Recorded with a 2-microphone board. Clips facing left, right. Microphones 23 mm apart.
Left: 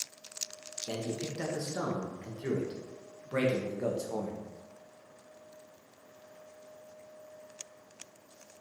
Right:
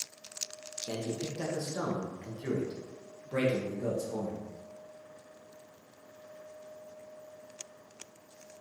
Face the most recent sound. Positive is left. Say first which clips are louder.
# even
turn(degrees=45)  # may be behind; listen again after turning